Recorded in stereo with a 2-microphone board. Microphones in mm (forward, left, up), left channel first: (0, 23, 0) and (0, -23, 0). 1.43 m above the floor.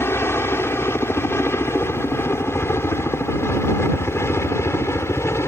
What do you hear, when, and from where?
0.0 s a helicopter: 60° left (ahead or behind); by 5.5 s 70° left (ahead or behind)